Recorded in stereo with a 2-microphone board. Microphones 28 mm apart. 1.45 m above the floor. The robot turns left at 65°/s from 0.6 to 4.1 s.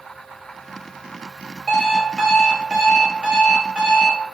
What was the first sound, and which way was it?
An alarm clock, 30° left.